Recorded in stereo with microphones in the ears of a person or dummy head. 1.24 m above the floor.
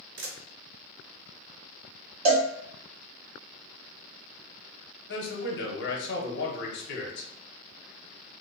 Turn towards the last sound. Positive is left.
turn(degrees=55)  # may be behind; listen again after turning